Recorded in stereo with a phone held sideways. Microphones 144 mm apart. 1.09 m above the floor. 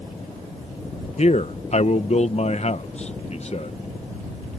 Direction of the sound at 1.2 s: 50° left (ahead or behind).